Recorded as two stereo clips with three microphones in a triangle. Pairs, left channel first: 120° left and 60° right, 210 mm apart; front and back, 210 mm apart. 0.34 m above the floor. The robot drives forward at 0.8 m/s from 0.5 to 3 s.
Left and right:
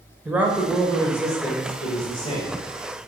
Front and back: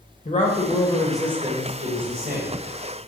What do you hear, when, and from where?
0.2 s a man speaking: 20° left, 0.9 m; by 3.1 s 175° left, 1.7 m